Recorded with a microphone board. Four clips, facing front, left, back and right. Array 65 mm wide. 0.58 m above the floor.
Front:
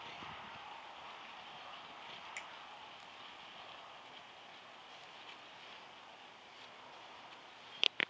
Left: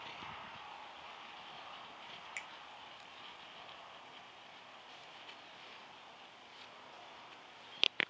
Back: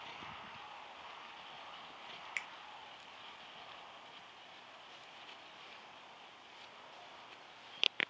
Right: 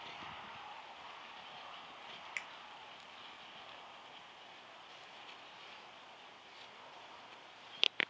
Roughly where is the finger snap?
Behind.